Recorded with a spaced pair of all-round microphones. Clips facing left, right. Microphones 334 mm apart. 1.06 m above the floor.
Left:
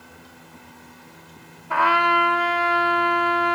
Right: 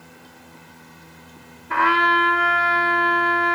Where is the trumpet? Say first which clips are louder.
Right 1 dB; 25° right (ahead or behind), 0.7 m.